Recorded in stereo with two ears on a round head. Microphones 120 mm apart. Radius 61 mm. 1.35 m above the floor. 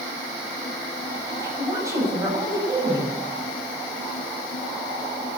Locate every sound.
1.3 s a woman speaking: 25° right (ahead or behind), 9 m